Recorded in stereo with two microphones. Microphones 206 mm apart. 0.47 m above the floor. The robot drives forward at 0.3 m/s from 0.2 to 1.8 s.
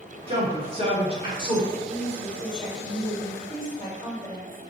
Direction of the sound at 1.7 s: 45° right (ahead or behind).